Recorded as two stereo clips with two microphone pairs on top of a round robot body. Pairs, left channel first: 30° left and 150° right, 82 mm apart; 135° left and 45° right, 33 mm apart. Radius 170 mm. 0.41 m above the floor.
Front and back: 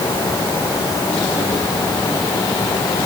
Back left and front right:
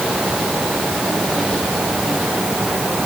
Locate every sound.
Only background noise.